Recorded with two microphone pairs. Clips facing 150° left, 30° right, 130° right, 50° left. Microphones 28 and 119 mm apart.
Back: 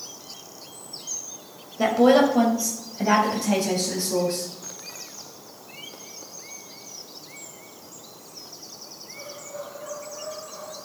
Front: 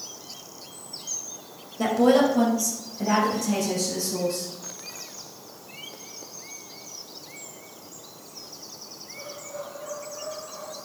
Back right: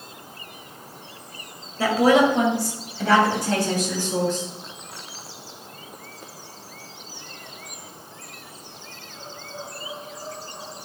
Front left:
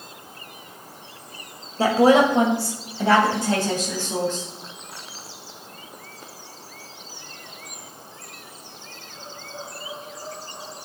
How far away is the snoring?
I don't hear snoring.